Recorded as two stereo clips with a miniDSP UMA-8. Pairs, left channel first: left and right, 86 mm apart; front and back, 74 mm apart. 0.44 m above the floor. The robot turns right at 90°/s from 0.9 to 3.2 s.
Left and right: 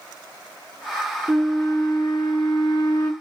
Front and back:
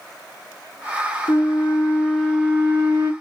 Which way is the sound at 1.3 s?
5° right.